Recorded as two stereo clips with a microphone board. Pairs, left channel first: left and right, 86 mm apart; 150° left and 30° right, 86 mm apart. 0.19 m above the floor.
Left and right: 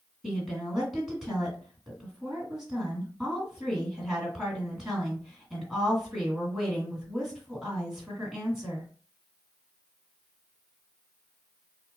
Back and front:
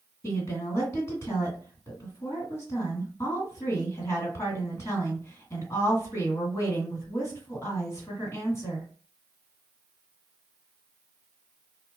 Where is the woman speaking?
170° right, 2.0 m.